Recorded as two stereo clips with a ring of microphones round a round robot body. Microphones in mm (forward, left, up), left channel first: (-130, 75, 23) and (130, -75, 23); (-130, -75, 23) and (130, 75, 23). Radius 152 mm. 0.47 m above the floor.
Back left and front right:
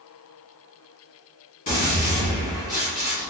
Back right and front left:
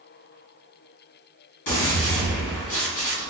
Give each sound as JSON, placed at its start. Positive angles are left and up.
{"t": 1.7, "sound": "a gunshot", "azimuth_deg": -145, "distance_m": 1.7}